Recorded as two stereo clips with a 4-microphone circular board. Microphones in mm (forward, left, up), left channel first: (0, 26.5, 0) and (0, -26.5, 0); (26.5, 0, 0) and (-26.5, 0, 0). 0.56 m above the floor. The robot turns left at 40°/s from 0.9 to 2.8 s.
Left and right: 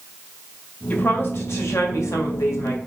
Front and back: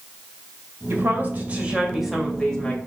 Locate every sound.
0.9 s a woman speaking: 145° left, 2 m; by 2.8 s 70° left, 2 m